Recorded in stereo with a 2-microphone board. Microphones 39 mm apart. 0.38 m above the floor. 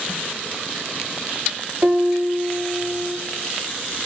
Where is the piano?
50° right (ahead or behind), 0.6 m.